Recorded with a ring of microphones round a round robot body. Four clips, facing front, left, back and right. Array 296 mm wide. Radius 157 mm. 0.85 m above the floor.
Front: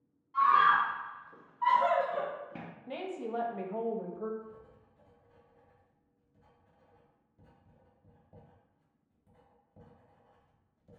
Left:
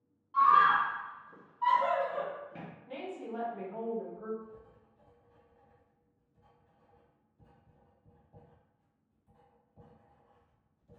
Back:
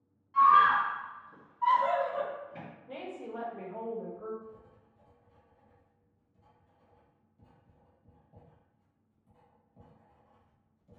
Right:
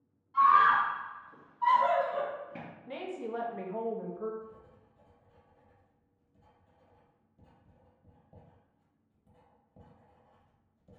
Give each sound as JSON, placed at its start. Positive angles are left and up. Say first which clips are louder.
{"t": 0.3, "sound": "a scream", "louder": "right 1 dB, back 3 dB", "azimuth_deg": 120, "distance_m": 1.0}
{"t": 2.9, "sound": "a woman speaking", "louder": "right 3 dB, front 4 dB", "azimuth_deg": -25, "distance_m": 0.8}
{"t": 4.4, "sound": "writing", "louder": "right 1 dB, even", "azimuth_deg": -60, "distance_m": 1.3}